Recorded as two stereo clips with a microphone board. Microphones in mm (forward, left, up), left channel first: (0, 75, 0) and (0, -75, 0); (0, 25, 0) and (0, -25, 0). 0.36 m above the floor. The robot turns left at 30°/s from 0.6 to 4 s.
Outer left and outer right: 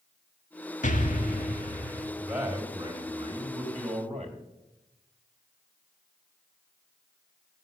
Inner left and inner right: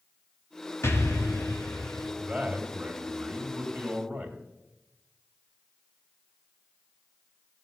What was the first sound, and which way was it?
An explosion, 120° left.